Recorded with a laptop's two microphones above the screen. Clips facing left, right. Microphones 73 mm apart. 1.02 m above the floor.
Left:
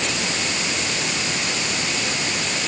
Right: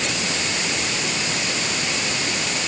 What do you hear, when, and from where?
Only background noise.